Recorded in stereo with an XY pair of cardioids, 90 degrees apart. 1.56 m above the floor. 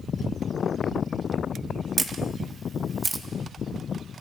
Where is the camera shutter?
35° right, 1.6 m.